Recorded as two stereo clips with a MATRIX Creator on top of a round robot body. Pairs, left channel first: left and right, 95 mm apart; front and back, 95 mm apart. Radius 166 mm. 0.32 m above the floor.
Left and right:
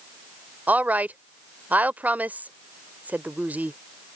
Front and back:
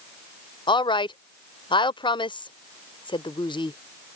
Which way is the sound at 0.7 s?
20° right.